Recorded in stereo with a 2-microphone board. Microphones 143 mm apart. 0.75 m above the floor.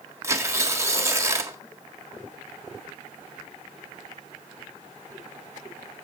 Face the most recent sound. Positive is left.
turn(degrees=-20)  # may be behind; listen again after turning